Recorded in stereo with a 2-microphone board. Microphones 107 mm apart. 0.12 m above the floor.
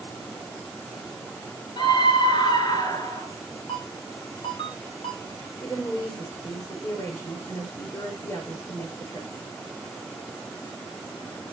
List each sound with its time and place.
1.8 s a scream: 45° left (ahead or behind), 2 m; by 3.3 s 30° left (ahead or behind), 2.5 m
3.7 s a ringtone: 55° left (ahead or behind), 9 m
5.6 s a woman speaking: 30° left (ahead or behind), 8 m